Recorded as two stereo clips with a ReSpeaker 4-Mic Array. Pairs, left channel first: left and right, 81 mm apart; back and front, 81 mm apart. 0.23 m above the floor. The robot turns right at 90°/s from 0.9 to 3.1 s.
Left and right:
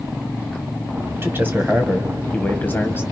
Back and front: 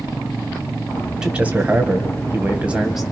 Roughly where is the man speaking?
Right.